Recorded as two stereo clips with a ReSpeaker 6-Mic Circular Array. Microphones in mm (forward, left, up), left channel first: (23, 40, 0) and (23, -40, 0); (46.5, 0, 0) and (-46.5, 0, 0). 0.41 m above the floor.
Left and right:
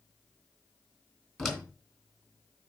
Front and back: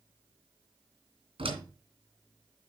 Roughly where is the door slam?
Behind.